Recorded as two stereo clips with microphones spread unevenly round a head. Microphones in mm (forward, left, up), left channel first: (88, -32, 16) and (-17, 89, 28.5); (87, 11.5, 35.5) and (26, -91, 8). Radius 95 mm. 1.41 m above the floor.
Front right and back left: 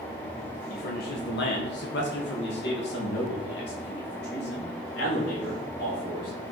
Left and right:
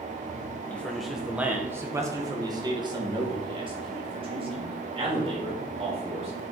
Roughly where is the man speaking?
Ahead right.